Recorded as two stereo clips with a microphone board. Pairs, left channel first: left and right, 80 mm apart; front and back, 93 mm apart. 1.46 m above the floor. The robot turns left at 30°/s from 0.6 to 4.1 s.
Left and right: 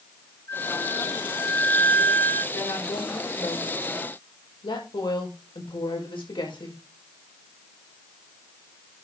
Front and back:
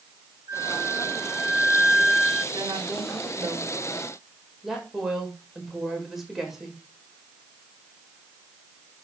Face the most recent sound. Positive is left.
turn(degrees=90)